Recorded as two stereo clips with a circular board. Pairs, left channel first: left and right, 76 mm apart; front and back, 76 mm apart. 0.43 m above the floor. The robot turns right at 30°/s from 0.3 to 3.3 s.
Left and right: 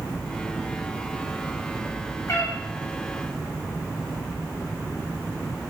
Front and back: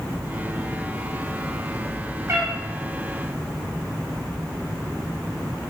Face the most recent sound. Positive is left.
turn(degrees=160)